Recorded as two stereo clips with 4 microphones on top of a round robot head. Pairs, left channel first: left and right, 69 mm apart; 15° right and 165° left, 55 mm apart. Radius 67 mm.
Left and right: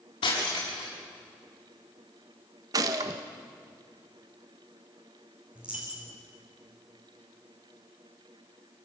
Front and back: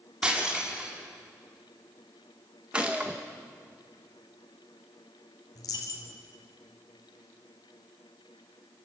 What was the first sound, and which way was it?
Breaking glass, 95° left.